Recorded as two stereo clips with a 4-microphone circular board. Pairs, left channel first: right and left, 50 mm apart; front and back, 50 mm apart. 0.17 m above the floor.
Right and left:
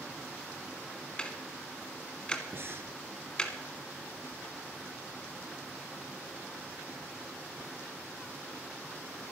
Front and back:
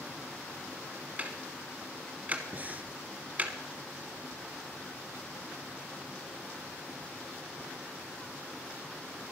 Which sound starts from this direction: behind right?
Ticking, at 1.2 s.